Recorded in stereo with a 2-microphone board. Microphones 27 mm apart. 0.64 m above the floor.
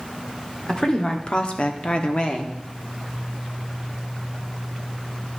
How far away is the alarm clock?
No alarm clock in this recording.